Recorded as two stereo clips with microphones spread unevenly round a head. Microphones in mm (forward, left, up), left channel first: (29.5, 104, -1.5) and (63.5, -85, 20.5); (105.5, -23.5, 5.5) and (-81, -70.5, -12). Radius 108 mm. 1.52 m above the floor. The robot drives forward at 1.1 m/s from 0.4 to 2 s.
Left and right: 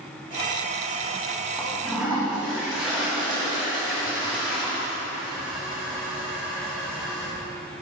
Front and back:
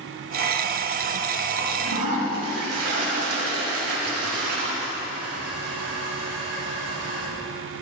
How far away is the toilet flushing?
About 4 m.